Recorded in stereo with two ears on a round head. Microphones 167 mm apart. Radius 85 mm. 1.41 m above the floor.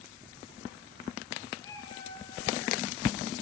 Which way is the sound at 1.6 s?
15° left (ahead or behind).